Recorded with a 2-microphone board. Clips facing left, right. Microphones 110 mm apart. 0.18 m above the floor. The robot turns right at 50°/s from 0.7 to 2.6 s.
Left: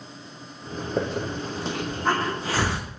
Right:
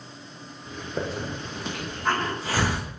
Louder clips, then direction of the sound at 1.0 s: Left 3 dB; 65° left (ahead or behind).